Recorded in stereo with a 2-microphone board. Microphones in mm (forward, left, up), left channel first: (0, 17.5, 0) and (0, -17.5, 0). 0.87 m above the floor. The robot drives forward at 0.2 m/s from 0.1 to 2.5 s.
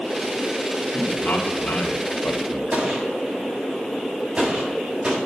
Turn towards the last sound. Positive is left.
turn(degrees=-35)  # may be behind; listen again after turning